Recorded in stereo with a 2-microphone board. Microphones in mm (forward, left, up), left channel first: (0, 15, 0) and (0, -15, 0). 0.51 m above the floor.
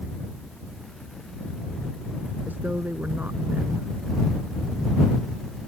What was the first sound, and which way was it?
A woman speaking, 70° right (ahead or behind).